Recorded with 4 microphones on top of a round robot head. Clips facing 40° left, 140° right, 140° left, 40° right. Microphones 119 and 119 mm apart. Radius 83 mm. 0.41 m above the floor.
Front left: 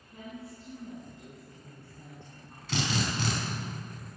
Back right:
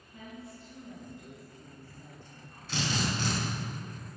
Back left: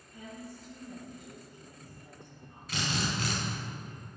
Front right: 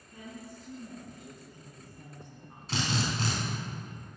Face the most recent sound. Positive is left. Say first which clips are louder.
# front left 1 dB, front right 2 dB
turn(degrees=25)